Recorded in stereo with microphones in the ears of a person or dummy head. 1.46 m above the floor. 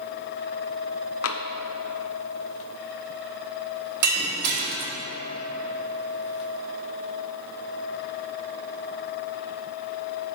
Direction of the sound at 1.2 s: 65° left (ahead or behind).